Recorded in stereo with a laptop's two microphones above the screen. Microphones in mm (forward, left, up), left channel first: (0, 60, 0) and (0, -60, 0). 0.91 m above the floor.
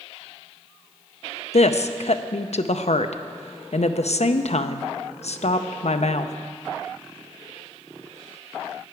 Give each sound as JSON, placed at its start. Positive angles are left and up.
{"t": 1.5, "sound": "a woman speaking", "side_deg": 65, "distance_m": 0.5}